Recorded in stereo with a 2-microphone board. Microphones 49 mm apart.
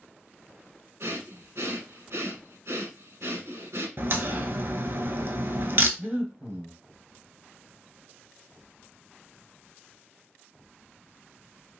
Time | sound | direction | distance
1.0 | breathing | 75° right (ahead or behind) | 1.2 m
4.0 | a crack | 60° right (ahead or behind) | 0.7 m
6.0 | breathing | 40° right (ahead or behind) | 1.2 m